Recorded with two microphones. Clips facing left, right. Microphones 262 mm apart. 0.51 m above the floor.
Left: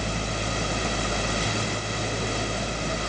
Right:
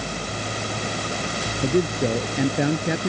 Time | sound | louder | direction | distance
1.6 | a man speaking | right 11 dB | 80° right | ?